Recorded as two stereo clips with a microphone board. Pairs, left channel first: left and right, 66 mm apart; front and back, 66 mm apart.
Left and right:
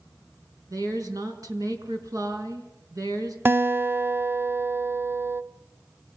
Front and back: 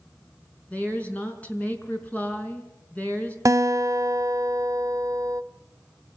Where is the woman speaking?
65° right, 4.5 m.